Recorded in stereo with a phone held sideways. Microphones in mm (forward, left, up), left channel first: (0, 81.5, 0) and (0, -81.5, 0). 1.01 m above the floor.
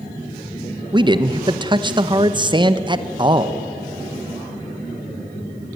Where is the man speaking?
30° right (ahead or behind), 0.8 m.